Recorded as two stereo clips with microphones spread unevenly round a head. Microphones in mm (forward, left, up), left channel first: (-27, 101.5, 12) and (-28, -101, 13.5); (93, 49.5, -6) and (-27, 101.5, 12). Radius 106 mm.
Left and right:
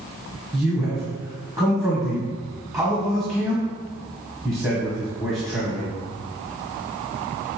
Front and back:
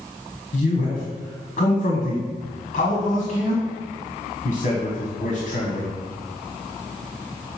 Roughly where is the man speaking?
Ahead.